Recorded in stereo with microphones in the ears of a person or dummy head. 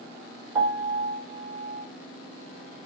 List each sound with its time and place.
0.6 s a piano: 20° right (ahead or behind), 1.3 m